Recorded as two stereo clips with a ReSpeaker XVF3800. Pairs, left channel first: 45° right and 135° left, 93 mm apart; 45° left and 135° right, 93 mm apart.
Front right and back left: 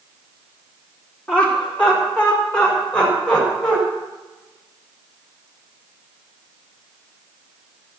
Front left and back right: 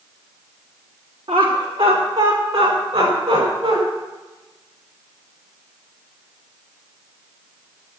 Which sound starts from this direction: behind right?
Laughter, at 1.3 s.